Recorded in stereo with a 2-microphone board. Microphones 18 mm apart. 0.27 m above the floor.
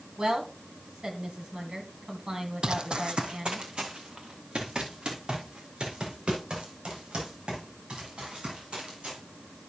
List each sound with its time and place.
0.2 s a woman speaking: 55° right (ahead or behind), 1.9 m
2.6 s running footsteps: 55° right (ahead or behind), 0.6 m; by 9.2 s 90° right, 8 m